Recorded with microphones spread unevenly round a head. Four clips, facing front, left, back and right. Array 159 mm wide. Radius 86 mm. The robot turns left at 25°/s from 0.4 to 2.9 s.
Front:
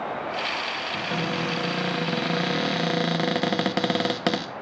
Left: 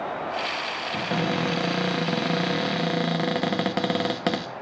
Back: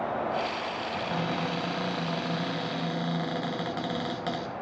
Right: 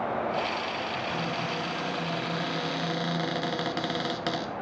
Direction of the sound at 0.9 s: 75° left.